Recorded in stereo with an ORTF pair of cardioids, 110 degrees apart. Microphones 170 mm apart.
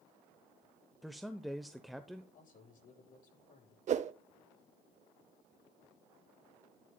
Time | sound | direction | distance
1.0 | a man speaking | straight ahead | 0.8 m
2.3 | a man speaking | 50° left | 9 m
3.9 | a whoosh | 45° right | 0.8 m